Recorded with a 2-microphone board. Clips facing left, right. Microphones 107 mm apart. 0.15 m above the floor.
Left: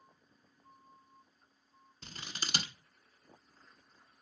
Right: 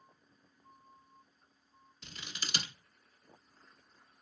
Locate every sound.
2.0 s scissors: 45° left (ahead or behind), 0.6 m